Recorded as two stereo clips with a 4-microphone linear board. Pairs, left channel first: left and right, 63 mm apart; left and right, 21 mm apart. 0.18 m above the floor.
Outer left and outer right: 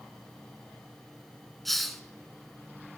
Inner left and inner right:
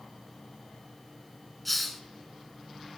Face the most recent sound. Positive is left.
turn(degrees=5)  # may be behind; listen again after turning